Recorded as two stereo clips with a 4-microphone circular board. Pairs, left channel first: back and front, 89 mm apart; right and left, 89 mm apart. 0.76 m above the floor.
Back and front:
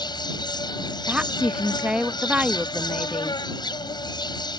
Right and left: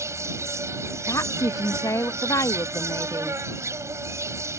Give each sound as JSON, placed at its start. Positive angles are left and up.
{"t": 0.0, "sound": "an insect", "azimuth_deg": 145}
{"t": 1.1, "sound": "a woman speaking", "azimuth_deg": -70}